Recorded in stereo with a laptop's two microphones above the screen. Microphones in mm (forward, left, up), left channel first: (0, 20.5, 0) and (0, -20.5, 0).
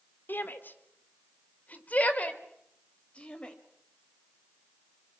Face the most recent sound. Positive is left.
turn(degrees=25)  # may be behind; listen again after turning